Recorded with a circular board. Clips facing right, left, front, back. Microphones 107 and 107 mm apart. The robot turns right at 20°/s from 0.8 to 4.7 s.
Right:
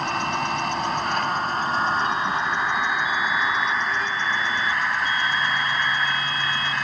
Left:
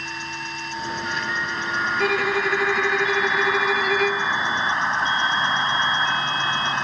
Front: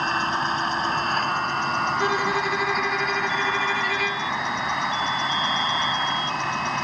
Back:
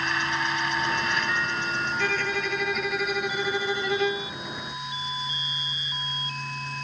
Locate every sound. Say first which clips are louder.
0.0 s an insect: right 8 dB, front 4 dB; 55° right; by 6.8 s 20° left
2.0 s a violin: left 2 dB, front 5 dB; 75° left; by 4.3 s 120° left